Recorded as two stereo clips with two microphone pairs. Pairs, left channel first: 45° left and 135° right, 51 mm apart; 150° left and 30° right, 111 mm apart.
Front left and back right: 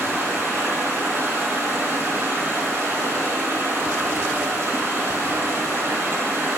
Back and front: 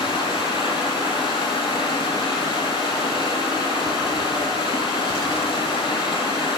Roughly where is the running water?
Behind.